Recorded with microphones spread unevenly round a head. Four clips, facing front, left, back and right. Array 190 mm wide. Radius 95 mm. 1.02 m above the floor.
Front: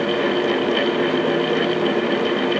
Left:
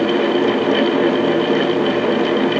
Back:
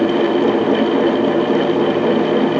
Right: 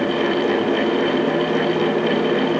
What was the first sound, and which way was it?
Only background noise.